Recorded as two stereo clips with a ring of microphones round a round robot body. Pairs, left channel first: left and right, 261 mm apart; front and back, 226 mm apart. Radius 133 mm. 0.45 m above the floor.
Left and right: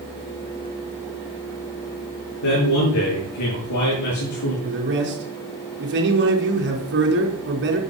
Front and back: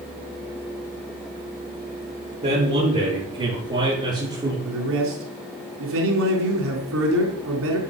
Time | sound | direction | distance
2.4 | a man speaking | 120° left | 7 m
4.7 | a man speaking | 140° right | 4.5 m